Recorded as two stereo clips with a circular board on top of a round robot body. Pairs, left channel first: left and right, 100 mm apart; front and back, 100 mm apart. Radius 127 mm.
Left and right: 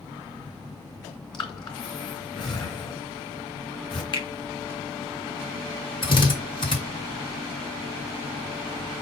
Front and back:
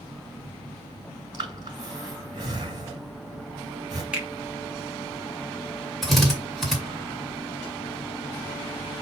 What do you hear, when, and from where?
1.3 s breathing: 135° left, 2.5 m
4.1 s a finger snap: 105° left, 1.8 m
6.0 s a drill: 90° left, 2 m